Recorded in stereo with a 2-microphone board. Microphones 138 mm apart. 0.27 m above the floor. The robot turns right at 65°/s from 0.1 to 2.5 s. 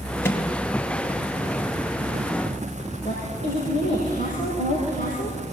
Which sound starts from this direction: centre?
A microwave, at 0.2 s.